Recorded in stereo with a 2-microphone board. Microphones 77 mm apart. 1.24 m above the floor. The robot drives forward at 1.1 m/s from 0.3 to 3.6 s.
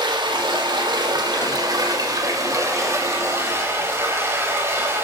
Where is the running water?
80° right, 2.5 m; by 5.0 s 35° right (ahead or behind), 4.5 m.